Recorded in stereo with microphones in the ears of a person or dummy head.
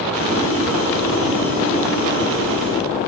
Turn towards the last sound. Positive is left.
turn(degrees=-40)  # may be behind; listen again after turning